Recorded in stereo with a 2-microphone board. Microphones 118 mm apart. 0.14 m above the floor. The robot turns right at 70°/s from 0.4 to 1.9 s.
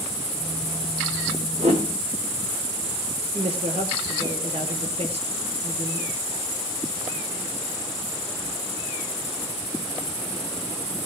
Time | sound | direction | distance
1.6 | a whoosh | 60° right (ahead or behind) | 3.5 m
3.3 | a woman speaking | 65° right (ahead or behind) | 2.5 m